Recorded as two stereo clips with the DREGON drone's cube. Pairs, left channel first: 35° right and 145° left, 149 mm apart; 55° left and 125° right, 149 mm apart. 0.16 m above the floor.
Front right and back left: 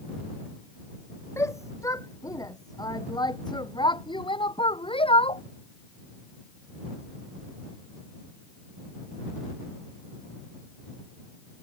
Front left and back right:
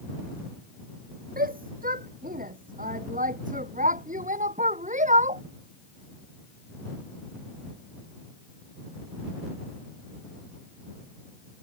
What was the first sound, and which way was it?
A shout, 105° right.